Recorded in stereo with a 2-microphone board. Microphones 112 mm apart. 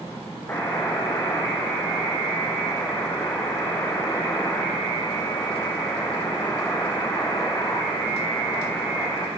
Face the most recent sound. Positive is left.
turn(degrees=25)  # may be behind; listen again after turning